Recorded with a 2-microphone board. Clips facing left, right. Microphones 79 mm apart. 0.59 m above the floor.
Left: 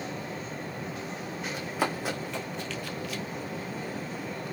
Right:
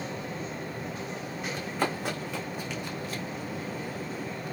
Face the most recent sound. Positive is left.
turn(degrees=-40)  # may be behind; listen again after turning